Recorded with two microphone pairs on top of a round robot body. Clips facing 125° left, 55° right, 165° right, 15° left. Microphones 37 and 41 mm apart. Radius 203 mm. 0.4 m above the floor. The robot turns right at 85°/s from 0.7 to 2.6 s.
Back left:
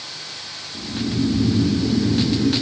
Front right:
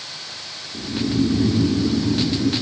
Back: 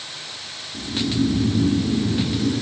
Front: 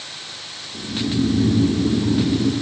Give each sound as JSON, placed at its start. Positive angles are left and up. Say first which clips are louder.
{"t": 0.7, "sound": "snoring", "louder": "front right 3 dB, even", "azimuth_deg": -105, "distance_m": 2.0}